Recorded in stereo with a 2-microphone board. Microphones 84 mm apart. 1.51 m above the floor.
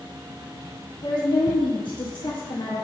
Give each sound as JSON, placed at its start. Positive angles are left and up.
{"t": 1.0, "sound": "a woman speaking", "side_deg": 75, "distance_m": 1.7}